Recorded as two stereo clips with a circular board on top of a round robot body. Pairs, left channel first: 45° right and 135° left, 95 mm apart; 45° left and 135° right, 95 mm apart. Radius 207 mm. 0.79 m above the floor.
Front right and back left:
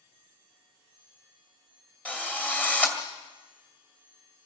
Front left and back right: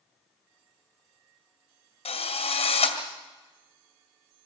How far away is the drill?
About 2 m.